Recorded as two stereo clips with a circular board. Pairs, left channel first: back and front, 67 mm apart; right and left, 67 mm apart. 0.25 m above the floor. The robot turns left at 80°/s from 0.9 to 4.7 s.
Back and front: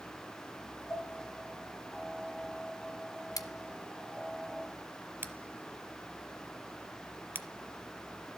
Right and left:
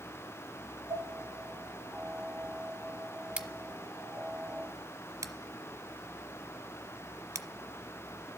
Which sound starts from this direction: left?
Dishes clattering, at 0.9 s.